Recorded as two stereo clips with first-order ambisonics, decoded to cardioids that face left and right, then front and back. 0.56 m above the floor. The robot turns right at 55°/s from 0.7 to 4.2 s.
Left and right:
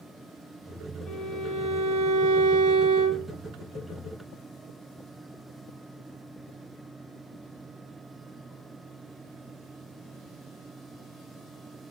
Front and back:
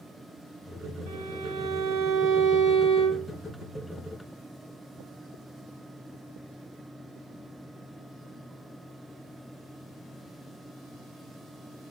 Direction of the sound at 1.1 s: 170° left.